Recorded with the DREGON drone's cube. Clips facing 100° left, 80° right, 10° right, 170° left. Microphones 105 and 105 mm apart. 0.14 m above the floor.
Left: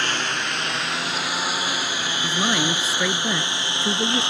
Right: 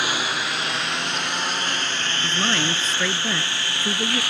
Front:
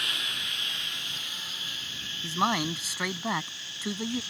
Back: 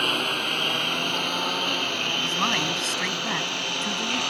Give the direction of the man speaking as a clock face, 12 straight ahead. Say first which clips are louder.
Left 2 dB, front 1 dB; 11 o'clock.